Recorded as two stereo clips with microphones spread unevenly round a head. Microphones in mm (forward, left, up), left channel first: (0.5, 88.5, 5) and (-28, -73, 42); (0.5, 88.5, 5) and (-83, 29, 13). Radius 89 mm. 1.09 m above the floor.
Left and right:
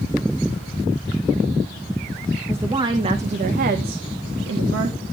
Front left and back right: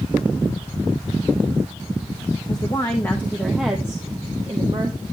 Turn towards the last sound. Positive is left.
turn(degrees=-85)